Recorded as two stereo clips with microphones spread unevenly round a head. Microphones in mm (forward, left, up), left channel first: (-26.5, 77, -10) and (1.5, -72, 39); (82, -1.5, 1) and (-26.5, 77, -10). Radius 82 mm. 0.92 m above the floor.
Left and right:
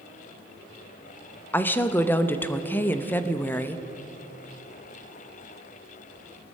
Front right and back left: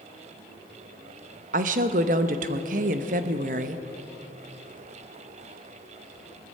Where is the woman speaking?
170° left, 0.8 m.